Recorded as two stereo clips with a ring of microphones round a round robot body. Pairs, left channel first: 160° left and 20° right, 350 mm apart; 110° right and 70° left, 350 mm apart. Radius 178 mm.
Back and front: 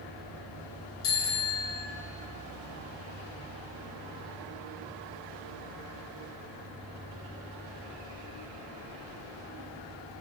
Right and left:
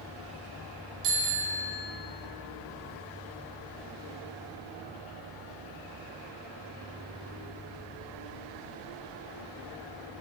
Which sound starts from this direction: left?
A bicycle bell, at 1.0 s.